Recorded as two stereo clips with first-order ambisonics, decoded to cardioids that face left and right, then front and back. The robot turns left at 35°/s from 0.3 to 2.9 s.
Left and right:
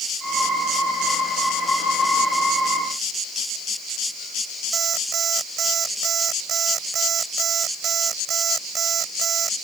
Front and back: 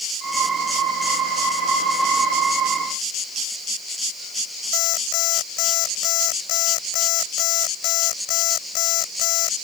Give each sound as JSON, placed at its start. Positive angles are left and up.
{"t": 4.7, "sound": "an alarm clock", "azimuth_deg": -30}